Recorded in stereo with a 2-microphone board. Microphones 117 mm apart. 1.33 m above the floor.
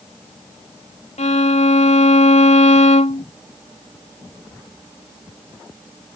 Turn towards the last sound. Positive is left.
turn(degrees=75)  # may be behind; listen again after turning